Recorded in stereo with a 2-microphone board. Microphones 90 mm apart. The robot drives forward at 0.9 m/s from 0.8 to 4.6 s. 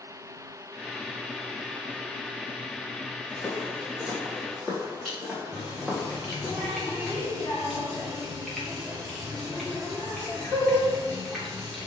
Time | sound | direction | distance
3.3 | footsteps | 15° left (ahead or behind) | 4.5 m
5.5 | a running tap | 5° left (ahead or behind) | 2.5 m